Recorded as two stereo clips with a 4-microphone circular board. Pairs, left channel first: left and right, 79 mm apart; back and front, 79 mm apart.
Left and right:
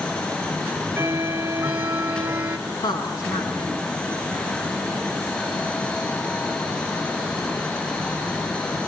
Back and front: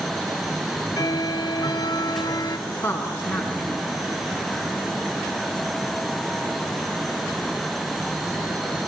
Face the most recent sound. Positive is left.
turn(degrees=120)